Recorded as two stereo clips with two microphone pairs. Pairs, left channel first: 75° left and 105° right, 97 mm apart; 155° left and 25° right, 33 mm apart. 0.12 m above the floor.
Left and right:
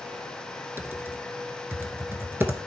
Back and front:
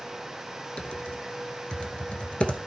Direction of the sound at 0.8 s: 160° right.